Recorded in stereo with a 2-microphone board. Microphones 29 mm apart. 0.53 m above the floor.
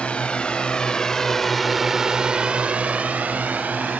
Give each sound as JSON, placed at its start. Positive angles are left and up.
{"t": 0.0, "sound": "a drone", "side_deg": 45}